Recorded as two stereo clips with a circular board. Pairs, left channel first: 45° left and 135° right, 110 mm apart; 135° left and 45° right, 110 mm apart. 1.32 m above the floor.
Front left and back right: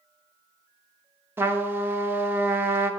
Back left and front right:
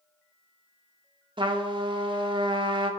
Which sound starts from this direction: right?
A trumpet, at 1.4 s.